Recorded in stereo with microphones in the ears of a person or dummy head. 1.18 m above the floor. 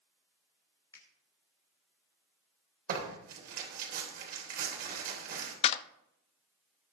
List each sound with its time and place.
0.9 s a finger snap: 20° left (ahead or behind), 3 m
2.9 s tearing paper: 60° right (ahead or behind), 3 m
5.6 s a clap: 30° left (ahead or behind), 0.5 m